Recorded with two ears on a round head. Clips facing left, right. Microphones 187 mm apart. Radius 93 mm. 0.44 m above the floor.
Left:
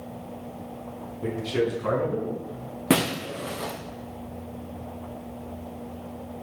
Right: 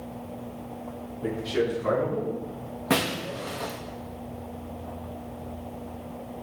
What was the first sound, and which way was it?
A man speaking, 40° left (ahead or behind).